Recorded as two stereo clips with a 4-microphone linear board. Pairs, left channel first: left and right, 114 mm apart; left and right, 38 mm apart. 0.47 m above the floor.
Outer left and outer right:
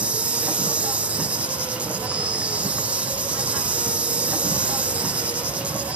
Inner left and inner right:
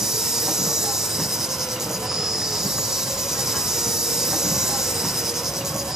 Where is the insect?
10° right (ahead or behind), 1.1 m.